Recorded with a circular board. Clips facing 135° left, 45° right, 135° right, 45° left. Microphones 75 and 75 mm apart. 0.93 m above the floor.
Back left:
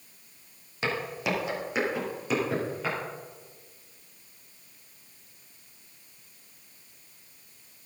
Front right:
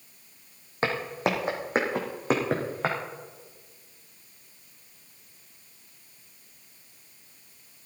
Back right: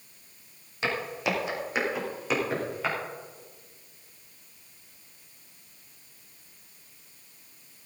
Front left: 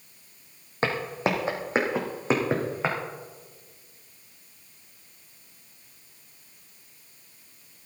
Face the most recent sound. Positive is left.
turn(degrees=-15)